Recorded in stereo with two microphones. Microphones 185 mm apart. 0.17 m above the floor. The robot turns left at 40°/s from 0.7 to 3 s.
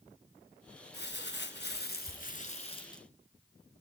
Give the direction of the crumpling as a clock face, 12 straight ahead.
9 o'clock.